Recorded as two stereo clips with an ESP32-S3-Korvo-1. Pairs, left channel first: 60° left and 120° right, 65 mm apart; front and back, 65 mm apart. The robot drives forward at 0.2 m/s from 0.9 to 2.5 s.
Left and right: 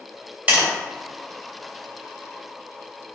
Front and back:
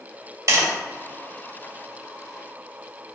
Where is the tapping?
Straight behind, 2.0 m.